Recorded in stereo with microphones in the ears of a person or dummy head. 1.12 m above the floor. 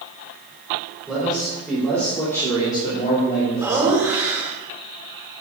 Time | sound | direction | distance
1.1 | a man speaking | centre (ahead or behind) | 3.5 m
3.6 | laughter | 20° right (ahead or behind) | 3 m